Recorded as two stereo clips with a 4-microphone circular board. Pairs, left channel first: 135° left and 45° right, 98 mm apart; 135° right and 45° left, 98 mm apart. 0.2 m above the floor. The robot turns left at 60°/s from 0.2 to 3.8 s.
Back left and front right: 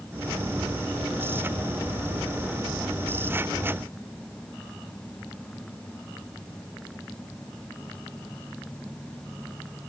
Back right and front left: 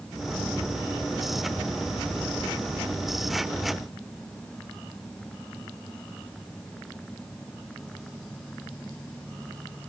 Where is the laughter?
I don't hear laughter.